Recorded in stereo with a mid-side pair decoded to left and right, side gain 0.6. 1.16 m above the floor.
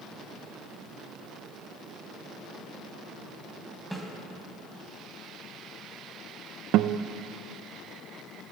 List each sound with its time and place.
3.9 s a snare drum: straight ahead, 3 m
6.7 s a guitar: 65° right, 0.6 m